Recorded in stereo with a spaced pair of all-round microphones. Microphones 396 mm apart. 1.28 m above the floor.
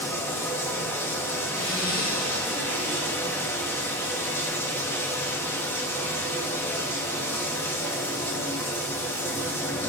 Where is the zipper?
10° left (ahead or behind), 1.9 m.